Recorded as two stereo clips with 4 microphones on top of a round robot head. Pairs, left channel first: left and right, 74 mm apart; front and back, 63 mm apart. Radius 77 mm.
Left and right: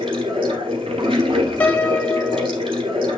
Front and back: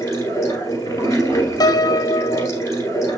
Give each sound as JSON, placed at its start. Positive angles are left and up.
{"t": 0.0, "sound": "running water", "azimuth_deg": -65, "distance_m": 2.0}
{"t": 1.6, "sound": "a piano", "azimuth_deg": 20, "distance_m": 0.9}